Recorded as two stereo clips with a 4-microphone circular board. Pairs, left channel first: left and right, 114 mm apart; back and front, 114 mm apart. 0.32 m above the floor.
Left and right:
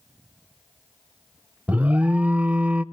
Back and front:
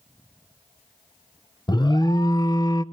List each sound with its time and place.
1.7 s an alarm: 160° right, 0.6 m